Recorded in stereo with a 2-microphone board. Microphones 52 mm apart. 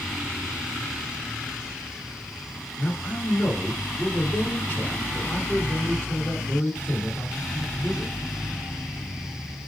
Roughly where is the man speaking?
Left.